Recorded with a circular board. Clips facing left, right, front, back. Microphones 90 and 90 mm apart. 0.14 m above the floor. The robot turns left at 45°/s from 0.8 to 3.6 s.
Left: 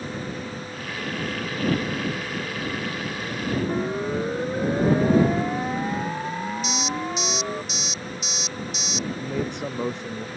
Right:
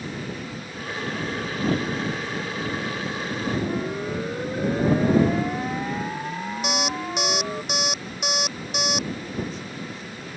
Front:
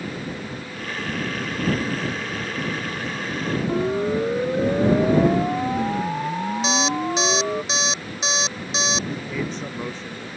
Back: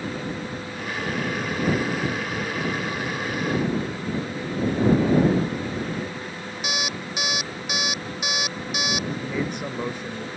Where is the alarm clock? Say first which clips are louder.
Right 1 dB, front 6 dB; 65° right.